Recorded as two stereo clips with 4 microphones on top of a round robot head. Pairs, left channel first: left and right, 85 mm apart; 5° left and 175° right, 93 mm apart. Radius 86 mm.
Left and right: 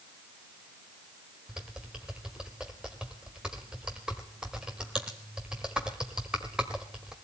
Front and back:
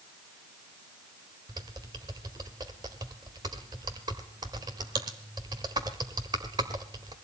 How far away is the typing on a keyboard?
About 1.1 m.